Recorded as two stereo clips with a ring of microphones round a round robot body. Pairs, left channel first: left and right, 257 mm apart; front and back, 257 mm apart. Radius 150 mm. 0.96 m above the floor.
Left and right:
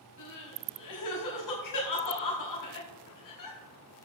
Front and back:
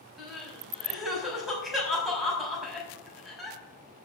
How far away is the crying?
About 5.5 m.